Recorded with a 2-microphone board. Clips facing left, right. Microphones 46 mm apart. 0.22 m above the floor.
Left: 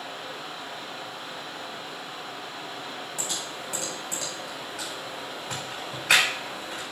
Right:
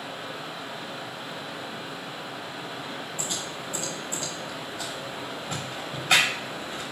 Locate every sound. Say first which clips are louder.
0.0 s running water: right 1 dB; 5° right (ahead or behind), 2 m
3.2 s typing on a keyboard: right 1 dB; 75° left (ahead or behind), 5 m